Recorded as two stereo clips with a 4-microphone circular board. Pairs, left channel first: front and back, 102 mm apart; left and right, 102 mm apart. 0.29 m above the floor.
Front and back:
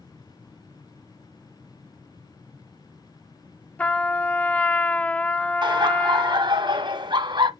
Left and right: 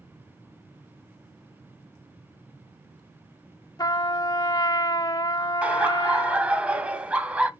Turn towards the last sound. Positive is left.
turn(degrees=-165)